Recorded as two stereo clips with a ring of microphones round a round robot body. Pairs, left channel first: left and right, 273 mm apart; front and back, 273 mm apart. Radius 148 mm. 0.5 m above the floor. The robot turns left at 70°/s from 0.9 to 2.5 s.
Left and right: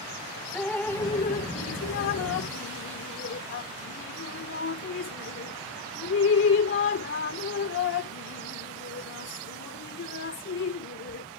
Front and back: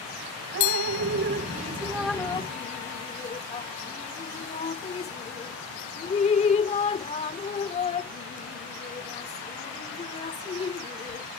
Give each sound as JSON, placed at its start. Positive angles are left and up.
{"t": 0.5, "sound": "dripping", "azimuth_deg": 175}